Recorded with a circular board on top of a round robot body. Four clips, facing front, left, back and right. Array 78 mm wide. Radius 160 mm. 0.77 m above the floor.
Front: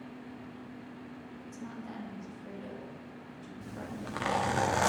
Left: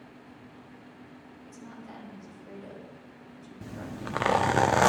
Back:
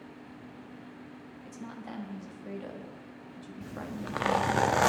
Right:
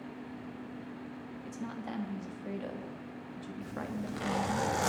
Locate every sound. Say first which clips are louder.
1.4 s a woman speaking: right 6 dB, back 2 dB; 115° right, 1.7 m
3.6 s a zipper: left 1 dB, back 3 dB; 105° left, 0.5 m